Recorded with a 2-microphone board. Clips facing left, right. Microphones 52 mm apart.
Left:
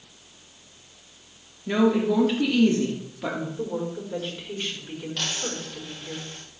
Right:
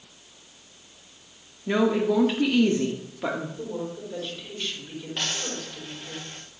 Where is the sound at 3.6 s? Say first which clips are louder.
Left 3 dB; 25° left (ahead or behind), 4 m.